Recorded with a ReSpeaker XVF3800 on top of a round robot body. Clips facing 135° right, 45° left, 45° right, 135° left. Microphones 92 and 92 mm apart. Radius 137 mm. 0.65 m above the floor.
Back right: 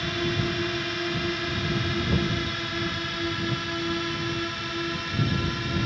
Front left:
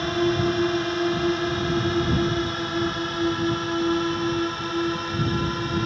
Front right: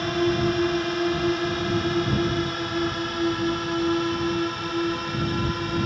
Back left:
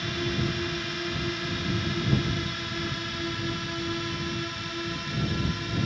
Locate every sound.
0.0 s a drone: 5° right